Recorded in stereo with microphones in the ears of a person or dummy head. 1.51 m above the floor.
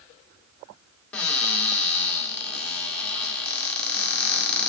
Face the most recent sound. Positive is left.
turn(degrees=10)  # may be behind; listen again after turning